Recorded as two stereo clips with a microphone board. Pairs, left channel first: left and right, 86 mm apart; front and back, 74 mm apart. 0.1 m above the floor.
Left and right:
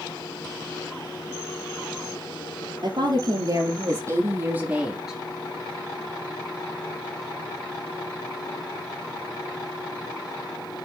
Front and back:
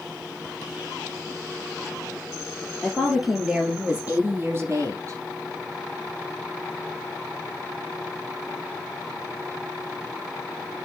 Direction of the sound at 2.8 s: 90° right.